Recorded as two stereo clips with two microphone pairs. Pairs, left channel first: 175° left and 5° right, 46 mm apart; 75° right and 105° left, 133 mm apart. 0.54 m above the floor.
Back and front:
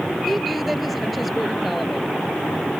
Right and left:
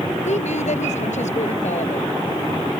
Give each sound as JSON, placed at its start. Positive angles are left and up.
{"t": 0.2, "sound": "a woman speaking", "azimuth_deg": -95}